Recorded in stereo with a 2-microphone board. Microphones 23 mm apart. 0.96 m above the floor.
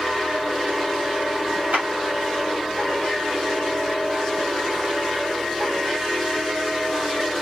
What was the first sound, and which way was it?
A clap, 70° right (ahead or behind).